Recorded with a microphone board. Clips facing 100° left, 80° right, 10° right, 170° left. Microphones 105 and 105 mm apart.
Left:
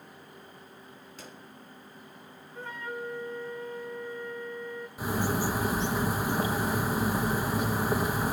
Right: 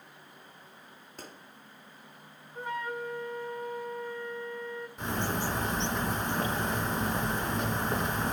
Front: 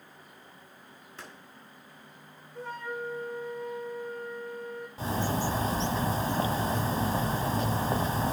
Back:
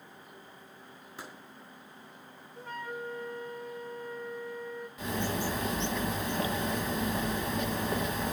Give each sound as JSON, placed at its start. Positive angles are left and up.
{"t": 1.2, "sound": "a gunshot", "azimuth_deg": -115, "distance_m": 3.0}
{"t": 2.5, "sound": "a flute", "azimuth_deg": -5, "distance_m": 2.0}
{"t": 5.0, "sound": "a bird", "azimuth_deg": 20, "distance_m": 1.1}